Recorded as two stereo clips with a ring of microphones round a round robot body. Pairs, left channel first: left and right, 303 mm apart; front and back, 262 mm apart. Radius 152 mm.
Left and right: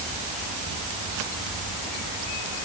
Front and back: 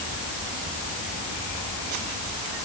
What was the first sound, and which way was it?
Only background noise.